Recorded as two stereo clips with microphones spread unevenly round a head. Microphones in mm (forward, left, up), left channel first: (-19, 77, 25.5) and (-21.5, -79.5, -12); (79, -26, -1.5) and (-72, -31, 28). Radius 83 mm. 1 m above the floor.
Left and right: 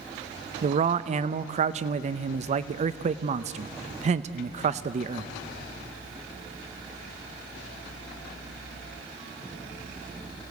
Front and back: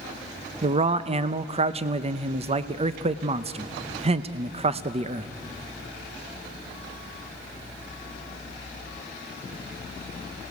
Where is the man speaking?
125° right, 0.7 m.